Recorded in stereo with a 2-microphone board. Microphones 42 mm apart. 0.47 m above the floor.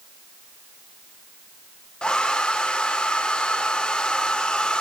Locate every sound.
2.0 s a hair dryer: 25° left (ahead or behind), 0.8 m